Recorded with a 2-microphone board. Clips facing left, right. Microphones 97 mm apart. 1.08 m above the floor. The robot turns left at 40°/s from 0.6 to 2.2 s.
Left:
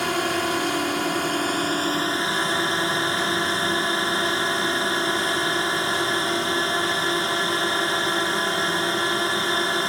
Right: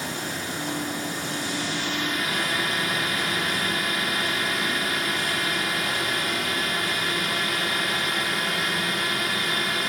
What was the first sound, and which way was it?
A drone, 95° left.